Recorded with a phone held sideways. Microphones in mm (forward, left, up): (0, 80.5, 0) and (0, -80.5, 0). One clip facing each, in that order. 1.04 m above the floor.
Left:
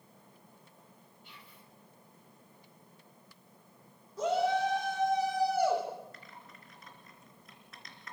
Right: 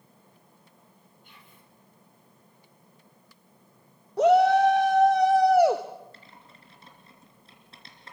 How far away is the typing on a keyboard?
About 3 m.